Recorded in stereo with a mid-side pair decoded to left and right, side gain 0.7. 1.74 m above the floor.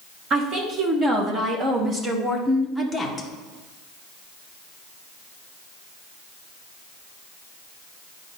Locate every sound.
0.3 s a woman speaking: 40° right, 2 m; by 3.3 s 5° left, 1.1 m